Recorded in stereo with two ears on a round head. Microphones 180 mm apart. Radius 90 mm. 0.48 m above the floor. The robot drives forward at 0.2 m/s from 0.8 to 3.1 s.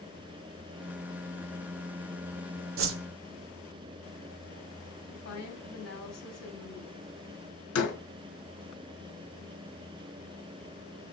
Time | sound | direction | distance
2.8 | a whoosh | 70° right (ahead or behind) | 0.6 m
5.1 | a woman speaking | 70° left (ahead or behind) | 3 m
7.8 | a door slam | 85° left | 3 m